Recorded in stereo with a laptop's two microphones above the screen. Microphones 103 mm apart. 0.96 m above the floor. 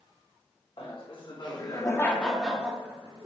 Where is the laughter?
55° left (ahead or behind), 1.3 m; by 3.3 s 40° right (ahead or behind), 0.9 m.